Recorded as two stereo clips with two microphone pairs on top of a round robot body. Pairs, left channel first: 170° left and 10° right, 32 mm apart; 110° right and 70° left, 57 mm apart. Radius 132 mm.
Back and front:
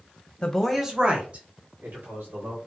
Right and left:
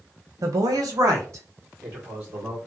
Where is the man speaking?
100° left, 0.9 m; by 2.6 s 15° left, 3 m.